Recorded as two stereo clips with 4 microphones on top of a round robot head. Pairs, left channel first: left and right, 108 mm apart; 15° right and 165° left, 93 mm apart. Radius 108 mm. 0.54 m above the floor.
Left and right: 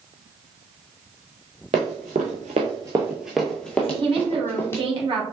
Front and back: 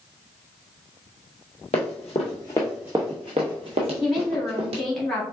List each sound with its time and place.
1.7 s running footsteps: 50° right, 0.9 m; by 4.8 s 160° left, 1.2 m
3.8 s a woman speaking: 95° right, 1.9 m